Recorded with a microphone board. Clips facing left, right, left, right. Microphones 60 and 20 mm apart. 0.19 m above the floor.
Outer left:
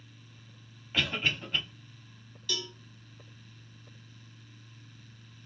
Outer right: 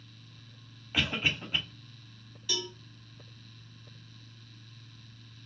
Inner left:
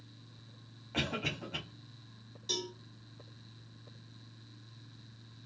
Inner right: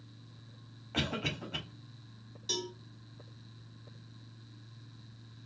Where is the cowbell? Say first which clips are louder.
Outer right 1 dB, even; 10° right (ahead or behind), 1.0 m.